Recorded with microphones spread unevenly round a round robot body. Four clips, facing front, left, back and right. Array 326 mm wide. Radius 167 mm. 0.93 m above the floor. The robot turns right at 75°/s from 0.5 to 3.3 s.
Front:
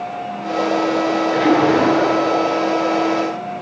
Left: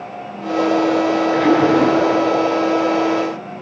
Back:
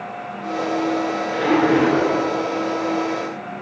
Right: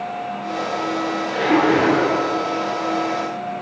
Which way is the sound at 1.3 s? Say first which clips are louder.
Left 1 dB, front 2 dB; 40° left.